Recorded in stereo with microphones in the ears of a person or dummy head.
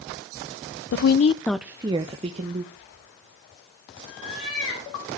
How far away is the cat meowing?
About 9 m.